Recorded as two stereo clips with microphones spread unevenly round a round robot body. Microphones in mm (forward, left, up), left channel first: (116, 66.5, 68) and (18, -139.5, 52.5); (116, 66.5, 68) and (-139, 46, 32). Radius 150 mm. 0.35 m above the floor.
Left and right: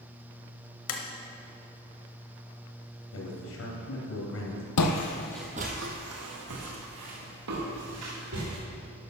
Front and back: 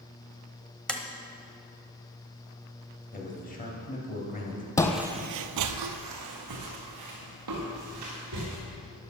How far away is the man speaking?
About 3 m.